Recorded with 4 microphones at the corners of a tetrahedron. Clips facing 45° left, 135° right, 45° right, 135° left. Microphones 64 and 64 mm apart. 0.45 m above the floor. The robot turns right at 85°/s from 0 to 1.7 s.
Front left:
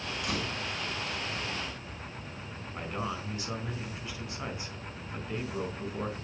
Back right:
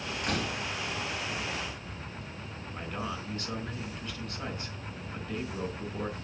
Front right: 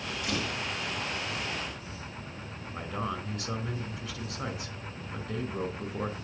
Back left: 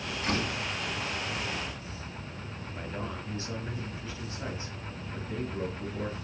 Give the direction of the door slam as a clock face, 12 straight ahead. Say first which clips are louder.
Back right 3 dB, back left 3 dB; 6 o'clock.